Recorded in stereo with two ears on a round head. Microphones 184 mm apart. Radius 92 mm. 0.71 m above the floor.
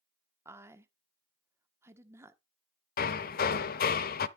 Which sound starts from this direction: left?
Hammering, at 3.0 s.